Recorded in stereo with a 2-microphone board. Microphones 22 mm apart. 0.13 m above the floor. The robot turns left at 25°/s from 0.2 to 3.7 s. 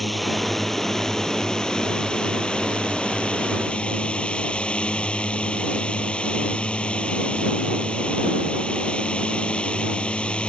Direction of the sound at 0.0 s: 175° left.